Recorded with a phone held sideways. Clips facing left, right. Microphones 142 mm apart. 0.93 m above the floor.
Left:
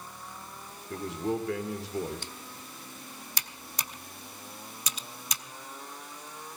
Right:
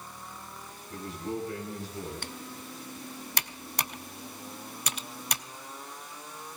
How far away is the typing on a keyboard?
About 0.6 m.